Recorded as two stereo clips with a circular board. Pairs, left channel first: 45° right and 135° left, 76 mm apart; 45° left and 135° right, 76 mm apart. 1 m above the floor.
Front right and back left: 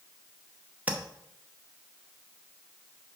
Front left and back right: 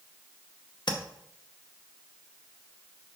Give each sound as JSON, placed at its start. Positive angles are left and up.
{"t": 0.9, "sound": "tapping", "azimuth_deg": 65, "distance_m": 0.8}